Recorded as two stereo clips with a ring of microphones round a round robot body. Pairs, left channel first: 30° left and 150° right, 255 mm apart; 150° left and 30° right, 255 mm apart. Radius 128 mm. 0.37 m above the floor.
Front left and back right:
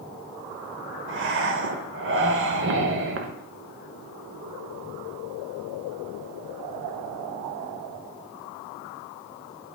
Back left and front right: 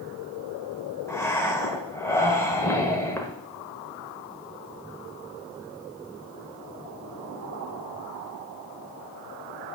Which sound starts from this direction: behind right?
Breathing, at 1.1 s.